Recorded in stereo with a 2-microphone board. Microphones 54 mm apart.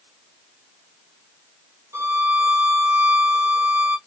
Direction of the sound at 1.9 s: 60° right (ahead or behind).